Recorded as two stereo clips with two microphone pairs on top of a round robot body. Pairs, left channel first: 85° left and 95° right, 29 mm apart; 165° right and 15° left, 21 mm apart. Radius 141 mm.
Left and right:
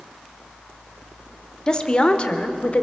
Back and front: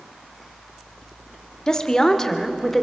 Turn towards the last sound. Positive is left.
turn(degrees=115)